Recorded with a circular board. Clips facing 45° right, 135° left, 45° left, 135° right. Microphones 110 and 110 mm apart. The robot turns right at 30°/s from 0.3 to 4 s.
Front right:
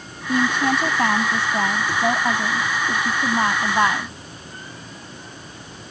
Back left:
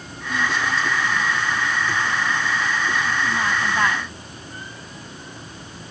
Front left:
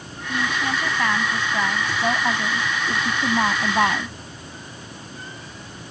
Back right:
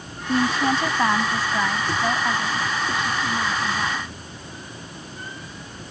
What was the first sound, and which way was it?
A woman speaking, 85° right.